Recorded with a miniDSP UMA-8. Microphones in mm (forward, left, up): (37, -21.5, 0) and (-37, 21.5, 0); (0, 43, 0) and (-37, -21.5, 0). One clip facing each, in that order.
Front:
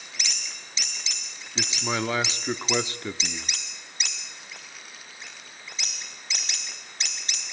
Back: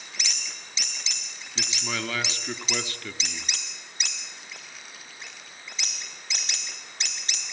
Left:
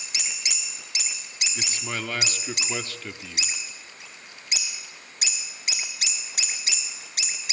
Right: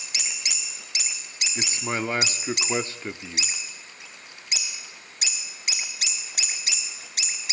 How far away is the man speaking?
About 1.0 m.